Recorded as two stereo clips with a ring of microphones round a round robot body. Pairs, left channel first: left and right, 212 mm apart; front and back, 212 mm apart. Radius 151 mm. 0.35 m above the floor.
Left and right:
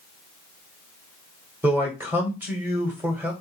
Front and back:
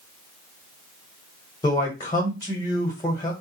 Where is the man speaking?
30° right, 1.1 m.